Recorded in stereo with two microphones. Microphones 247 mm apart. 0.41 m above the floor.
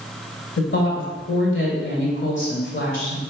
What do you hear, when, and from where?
0.6 s a woman speaking: 50° left (ahead or behind), 2.5 m